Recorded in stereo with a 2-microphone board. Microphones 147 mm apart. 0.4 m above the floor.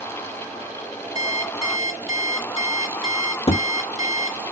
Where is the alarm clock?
55° left (ahead or behind), 3 m.